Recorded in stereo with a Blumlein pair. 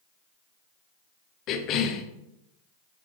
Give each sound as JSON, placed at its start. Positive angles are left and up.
{"t": 1.5, "sound": "a cough", "azimuth_deg": 35, "distance_m": 1.1}